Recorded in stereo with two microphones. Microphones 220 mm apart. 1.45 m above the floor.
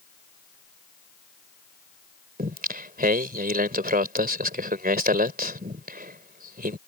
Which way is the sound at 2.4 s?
40° right (ahead or behind).